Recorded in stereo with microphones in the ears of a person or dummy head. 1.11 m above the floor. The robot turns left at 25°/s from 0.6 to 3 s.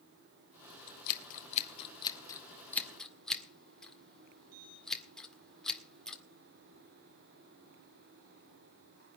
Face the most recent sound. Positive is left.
turn(degrees=5)  # may be behind; listen again after turning